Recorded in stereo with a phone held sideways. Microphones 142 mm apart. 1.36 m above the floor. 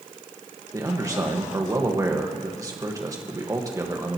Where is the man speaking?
25° right (ahead or behind), 1.6 m.